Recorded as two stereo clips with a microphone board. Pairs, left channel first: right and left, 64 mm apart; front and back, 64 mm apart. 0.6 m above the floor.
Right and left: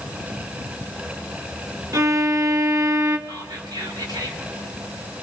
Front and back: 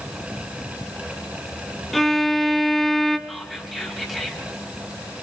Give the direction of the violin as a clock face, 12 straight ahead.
9 o'clock.